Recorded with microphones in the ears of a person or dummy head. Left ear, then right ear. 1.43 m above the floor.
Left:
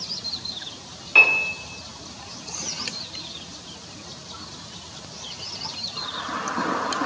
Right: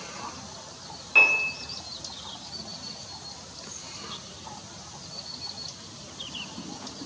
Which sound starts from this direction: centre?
A piano, at 1.1 s.